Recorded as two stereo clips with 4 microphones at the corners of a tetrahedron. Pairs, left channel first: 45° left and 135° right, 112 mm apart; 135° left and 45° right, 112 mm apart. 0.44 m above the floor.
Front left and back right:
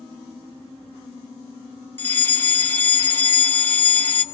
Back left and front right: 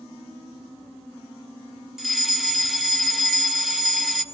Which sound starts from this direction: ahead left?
A fire alarm, at 2.0 s.